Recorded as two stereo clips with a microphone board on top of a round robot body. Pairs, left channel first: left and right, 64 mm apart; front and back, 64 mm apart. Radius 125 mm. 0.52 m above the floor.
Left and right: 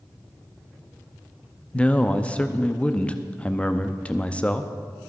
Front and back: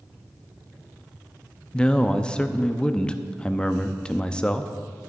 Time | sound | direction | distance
1.7 | a man speaking | 50° left | 0.7 m